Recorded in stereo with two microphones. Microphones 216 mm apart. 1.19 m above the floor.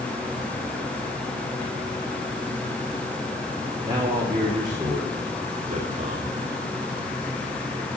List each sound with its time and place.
3.8 s a man speaking: 15° right (ahead or behind), 3 m; by 6.4 s 40° right (ahead or behind), 3.5 m